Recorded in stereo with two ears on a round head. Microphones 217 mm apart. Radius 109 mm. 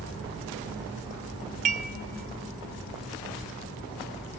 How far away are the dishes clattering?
About 0.7 m.